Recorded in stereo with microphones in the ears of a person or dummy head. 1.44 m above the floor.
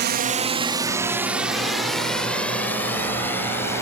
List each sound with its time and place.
0.0 s a drone: 50° right (ahead or behind); by 3.8 s 15° left (ahead or behind)